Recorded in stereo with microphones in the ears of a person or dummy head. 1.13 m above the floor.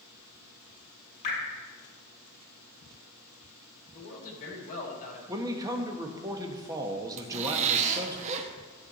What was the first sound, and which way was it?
Dripping, 35° left (ahead or behind).